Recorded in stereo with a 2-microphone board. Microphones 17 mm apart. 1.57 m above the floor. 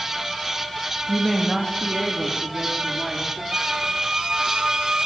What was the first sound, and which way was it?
A woman speaking, 5° right (ahead or behind).